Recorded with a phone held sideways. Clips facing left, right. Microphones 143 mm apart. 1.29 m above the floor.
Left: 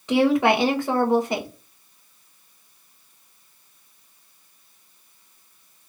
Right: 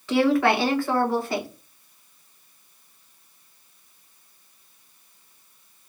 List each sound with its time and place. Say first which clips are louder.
0.1 s a woman speaking: left 1 dB; 20° left (ahead or behind), 1.1 m